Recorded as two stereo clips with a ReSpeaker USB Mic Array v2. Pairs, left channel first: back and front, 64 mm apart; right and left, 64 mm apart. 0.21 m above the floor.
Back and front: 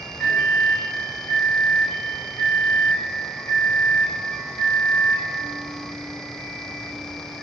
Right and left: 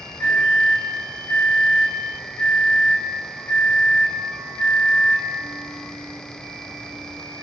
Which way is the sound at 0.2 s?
105° right.